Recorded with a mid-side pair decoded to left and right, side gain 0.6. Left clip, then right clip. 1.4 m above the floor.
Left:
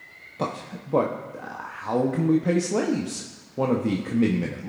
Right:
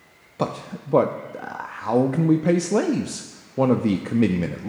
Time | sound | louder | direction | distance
0.4 | a man speaking | right 3 dB | 25° right | 0.6 m